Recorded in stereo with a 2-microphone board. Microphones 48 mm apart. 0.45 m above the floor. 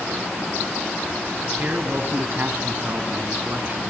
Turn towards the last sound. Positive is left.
turn(degrees=-45)  # may be behind; listen again after turning